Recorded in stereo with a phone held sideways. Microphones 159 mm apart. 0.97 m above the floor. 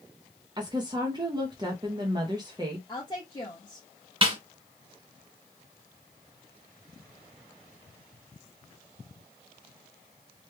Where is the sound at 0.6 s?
25° right (ahead or behind), 0.7 m.